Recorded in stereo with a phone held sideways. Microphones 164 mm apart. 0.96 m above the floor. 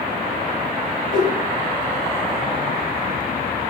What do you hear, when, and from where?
1.1 s a whoosh: 60° right (ahead or behind), 1.4 m